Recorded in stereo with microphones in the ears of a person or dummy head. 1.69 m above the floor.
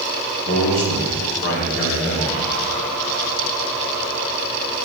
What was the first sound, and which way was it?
A man speaking, 50° left (ahead or behind).